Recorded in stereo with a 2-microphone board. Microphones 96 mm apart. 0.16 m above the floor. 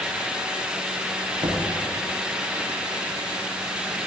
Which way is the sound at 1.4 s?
80° right.